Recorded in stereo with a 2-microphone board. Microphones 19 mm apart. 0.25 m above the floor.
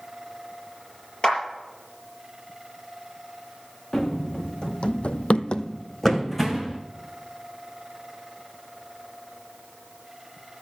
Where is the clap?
45° left (ahead or behind), 5 m.